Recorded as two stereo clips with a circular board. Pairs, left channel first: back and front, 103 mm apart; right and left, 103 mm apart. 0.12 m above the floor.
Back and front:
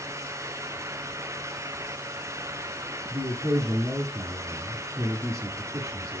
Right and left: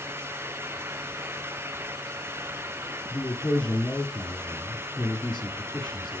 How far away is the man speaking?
About 1.7 m.